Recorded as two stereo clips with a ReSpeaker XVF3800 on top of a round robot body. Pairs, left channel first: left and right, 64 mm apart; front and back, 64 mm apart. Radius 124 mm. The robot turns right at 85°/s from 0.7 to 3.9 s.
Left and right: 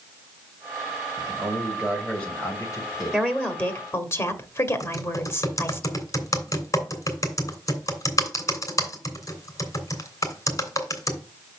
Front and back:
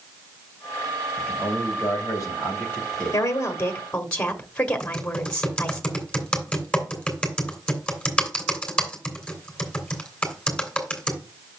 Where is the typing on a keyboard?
75° left, 3 m.